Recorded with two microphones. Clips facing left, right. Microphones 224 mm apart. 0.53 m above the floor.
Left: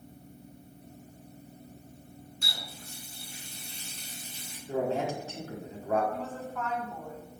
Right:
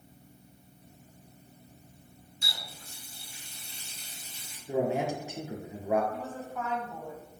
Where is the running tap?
65° left (ahead or behind), 3.5 m.